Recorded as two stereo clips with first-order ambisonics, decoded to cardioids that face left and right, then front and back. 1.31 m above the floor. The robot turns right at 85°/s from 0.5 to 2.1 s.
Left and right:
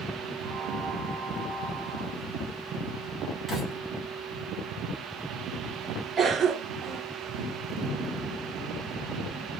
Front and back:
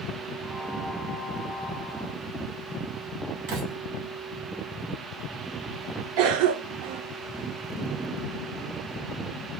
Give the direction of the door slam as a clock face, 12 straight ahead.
6 o'clock.